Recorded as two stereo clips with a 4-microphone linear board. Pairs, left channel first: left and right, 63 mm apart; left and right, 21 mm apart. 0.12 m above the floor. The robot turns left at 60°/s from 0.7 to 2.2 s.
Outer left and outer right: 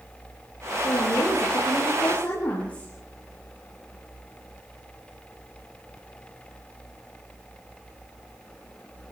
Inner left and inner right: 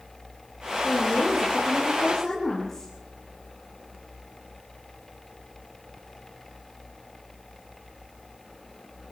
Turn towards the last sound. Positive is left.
turn(degrees=20)